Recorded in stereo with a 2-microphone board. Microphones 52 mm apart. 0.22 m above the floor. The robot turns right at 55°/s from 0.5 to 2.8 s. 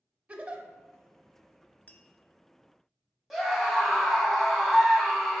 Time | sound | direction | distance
0.3 | a giggle | 20° right (ahead or behind) | 0.9 m
1.9 | tapping | 30° left (ahead or behind) | 0.6 m
3.3 | a scream | 5° right (ahead or behind) | 1.9 m